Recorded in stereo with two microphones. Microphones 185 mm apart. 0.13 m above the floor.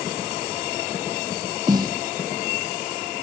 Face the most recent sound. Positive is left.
turn(degrees=-20)  # may be behind; listen again after turning